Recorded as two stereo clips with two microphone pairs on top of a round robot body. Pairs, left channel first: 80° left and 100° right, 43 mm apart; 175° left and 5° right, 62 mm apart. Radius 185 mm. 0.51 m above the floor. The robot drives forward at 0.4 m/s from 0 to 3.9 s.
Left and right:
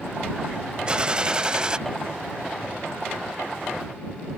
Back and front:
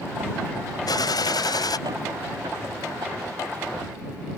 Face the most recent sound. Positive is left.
turn(degrees=-175)